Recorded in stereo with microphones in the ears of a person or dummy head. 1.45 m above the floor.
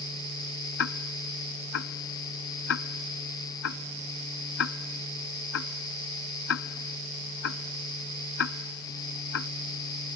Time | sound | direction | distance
0.8 | ticking | 70° left (ahead or behind) | ?